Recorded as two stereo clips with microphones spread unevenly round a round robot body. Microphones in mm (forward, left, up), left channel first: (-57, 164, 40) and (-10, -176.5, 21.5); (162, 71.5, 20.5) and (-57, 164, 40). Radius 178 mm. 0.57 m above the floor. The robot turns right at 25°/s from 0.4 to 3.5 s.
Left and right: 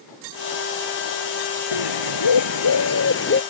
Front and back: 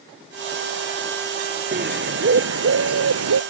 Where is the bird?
115° left; by 3.4 s 155° left.